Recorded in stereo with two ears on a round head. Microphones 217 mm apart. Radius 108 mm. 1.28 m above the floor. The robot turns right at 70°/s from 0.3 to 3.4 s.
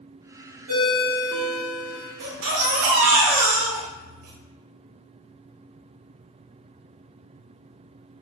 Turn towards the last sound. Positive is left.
turn(degrees=-40)